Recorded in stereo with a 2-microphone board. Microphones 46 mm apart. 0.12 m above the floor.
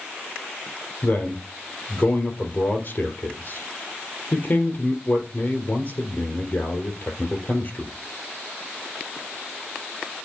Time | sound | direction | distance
1.0 | a man speaking | 40° left (ahead or behind) | 2 m